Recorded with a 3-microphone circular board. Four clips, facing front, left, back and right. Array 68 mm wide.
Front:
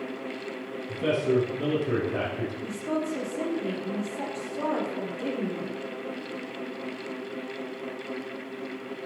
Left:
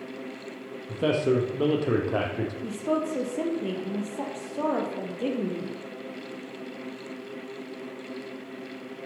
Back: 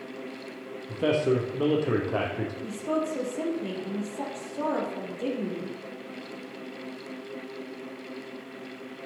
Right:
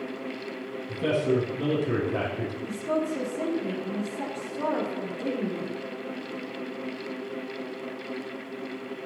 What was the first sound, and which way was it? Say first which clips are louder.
A man speaking: left 1 dB, even; 120° left.